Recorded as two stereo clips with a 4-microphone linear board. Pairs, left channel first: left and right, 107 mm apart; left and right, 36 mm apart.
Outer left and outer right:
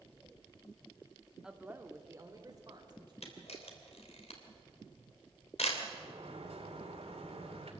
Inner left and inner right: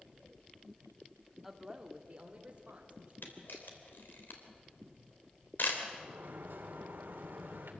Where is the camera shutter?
75° left (ahead or behind), 3 m.